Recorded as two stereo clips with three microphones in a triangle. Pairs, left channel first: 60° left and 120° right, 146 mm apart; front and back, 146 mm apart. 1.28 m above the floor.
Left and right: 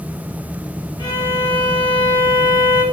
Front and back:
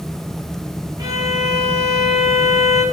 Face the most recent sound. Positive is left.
turn(degrees=120)